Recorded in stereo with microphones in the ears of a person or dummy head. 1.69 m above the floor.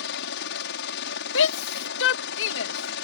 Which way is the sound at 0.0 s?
65° left (ahead or behind).